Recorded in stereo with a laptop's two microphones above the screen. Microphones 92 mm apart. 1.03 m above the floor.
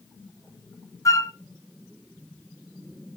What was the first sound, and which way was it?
A flute, 35° left (ahead or behind).